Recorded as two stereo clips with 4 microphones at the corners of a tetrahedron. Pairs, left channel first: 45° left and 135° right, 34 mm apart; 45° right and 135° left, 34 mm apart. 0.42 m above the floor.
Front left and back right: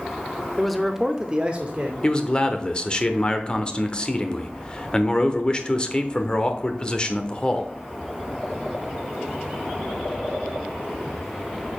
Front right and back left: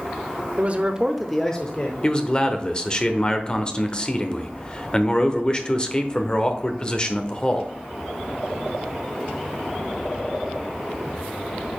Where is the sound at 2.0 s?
Straight ahead, 0.9 m.